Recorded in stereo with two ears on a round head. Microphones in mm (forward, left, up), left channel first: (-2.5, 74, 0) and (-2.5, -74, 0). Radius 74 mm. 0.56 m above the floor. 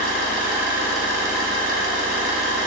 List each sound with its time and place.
0.0 s an engine running: 75° right (ahead or behind), 2 m